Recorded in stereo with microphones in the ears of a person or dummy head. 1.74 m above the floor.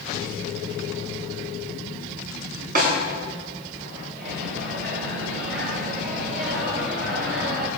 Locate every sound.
2.8 s a snare drum: 55° right (ahead or behind), 7.5 m
4.1 s a microwave: 65° right (ahead or behind), 7 m